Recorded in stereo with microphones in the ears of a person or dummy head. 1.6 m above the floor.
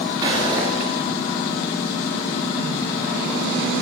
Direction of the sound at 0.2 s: 15° right (ahead or behind).